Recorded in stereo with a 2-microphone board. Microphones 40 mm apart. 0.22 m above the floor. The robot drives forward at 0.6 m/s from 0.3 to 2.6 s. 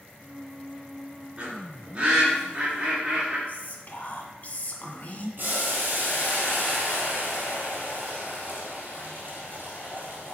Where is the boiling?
55° right (ahead or behind), 3.5 m.